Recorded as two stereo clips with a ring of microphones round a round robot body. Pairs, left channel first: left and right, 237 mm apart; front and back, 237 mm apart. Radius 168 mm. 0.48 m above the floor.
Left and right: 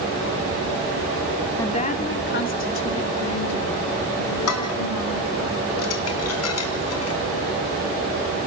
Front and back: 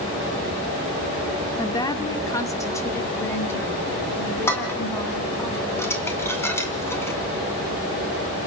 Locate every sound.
1.6 s a woman speaking: 45° left, 1.4 m; by 5.5 s 80° left, 6 m
4.5 s dishes clattering: 80° left, 3.5 m